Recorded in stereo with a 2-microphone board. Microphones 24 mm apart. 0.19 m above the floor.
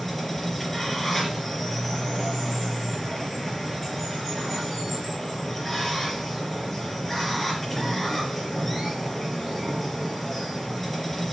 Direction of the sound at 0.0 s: 5° left (ahead or behind).